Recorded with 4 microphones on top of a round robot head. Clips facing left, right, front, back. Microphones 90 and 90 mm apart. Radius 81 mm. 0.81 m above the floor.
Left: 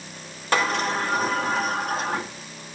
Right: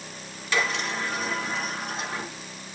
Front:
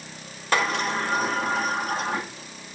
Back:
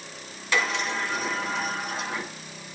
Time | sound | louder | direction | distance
0.5 | a sliding door | left 5 dB, front 3 dB | 45° left | 2.5 m